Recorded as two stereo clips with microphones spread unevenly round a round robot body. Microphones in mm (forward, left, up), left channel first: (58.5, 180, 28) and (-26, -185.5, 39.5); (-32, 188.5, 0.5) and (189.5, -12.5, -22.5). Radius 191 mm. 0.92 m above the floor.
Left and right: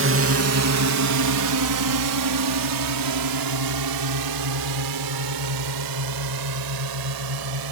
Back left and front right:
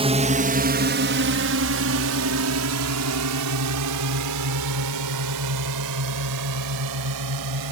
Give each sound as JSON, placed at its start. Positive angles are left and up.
{"t": 0.0, "sound": "a drone", "azimuth_deg": -90}